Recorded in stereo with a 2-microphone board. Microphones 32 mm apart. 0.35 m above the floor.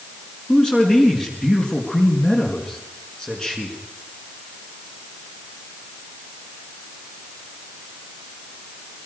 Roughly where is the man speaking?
Left.